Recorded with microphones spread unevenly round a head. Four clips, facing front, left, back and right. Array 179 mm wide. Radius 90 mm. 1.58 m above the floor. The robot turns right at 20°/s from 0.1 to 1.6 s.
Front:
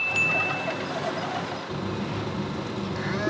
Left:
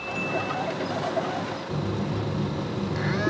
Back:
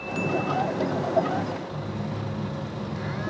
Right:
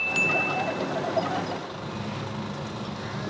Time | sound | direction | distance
1.7 | a phone buzzing | 50° left | 3.5 m